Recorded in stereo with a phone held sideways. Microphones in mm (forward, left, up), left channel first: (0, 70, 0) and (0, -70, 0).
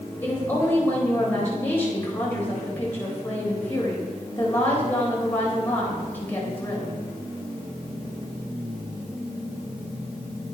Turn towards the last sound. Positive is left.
turn(degrees=15)  # may be behind; listen again after turning